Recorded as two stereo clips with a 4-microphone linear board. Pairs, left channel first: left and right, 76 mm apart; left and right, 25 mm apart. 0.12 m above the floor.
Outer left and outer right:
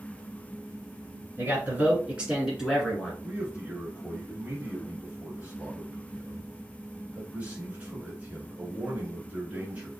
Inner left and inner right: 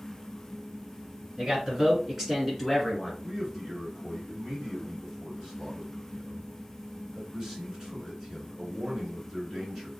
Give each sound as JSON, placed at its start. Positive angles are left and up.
{"t": 1.4, "sound": "a man speaking", "side_deg": -30, "distance_m": 1.6}
{"t": 3.2, "sound": "a man speaking", "side_deg": -20, "distance_m": 1.6}